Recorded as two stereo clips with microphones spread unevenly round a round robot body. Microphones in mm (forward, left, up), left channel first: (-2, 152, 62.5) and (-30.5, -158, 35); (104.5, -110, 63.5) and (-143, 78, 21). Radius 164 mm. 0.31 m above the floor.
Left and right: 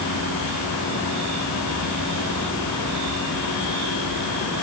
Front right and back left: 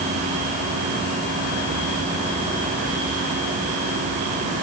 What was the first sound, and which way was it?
Only background noise.